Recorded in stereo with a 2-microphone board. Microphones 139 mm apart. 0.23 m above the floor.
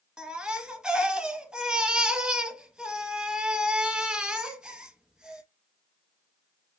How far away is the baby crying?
About 0.8 m.